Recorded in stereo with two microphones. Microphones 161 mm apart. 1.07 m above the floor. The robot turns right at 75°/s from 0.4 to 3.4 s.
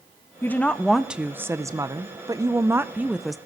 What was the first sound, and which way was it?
A woman speaking, 15° left (ahead or behind).